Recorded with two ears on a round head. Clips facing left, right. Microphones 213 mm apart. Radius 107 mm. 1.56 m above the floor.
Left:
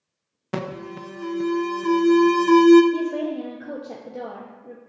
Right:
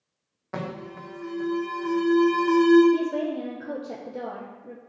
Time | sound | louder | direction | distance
0.5 | an alarm | left 4 dB | 45° left (ahead or behind) | 0.7 m
2.9 | a woman speaking | even | centre (ahead or behind) | 0.7 m